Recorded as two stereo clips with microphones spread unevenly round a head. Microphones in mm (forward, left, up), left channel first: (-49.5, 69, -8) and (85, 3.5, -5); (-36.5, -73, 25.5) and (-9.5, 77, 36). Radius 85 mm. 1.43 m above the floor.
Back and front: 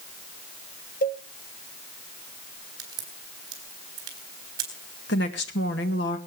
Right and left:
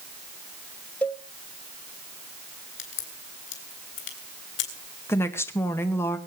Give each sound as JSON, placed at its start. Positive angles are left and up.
{"t": 1.0, "sound": "a cowbell", "azimuth_deg": 180, "distance_m": 1.0}
{"t": 2.8, "sound": "a crack", "azimuth_deg": -95, "distance_m": 3.5}
{"t": 5.1, "sound": "a woman speaking", "azimuth_deg": -175, "distance_m": 1.9}